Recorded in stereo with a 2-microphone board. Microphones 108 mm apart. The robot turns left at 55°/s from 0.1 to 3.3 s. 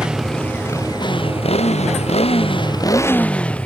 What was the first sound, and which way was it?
A motorcycle, 175° right.